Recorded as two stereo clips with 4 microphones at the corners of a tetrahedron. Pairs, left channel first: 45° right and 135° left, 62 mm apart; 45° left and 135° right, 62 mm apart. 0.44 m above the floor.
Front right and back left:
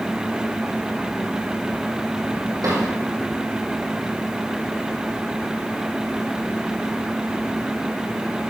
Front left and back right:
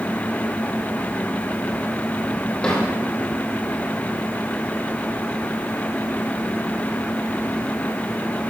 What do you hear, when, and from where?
2.6 s a drawer: 120° left, 5.5 m